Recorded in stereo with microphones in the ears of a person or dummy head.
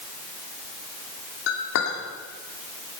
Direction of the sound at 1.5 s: 70° left (ahead or behind).